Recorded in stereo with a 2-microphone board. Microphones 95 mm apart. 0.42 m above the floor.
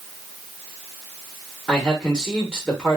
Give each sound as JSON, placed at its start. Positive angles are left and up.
{"t": 1.7, "sound": "a man speaking", "side_deg": 10, "distance_m": 0.9}